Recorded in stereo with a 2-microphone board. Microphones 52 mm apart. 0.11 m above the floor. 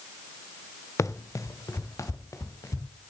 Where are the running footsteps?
65° left (ahead or behind), 1.0 m; by 2.9 s 70° left (ahead or behind), 2.5 m.